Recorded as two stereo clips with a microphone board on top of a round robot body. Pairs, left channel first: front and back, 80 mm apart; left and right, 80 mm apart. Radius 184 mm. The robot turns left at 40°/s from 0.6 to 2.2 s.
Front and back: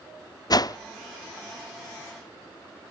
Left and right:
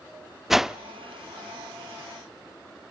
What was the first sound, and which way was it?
A whoosh, 5° right.